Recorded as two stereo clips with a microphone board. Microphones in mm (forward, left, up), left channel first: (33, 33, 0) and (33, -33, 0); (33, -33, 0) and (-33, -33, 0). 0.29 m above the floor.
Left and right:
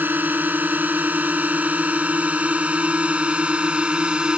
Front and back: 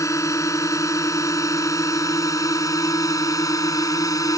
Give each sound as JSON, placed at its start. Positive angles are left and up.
{"t": 0.0, "sound": "a drone", "azimuth_deg": -30}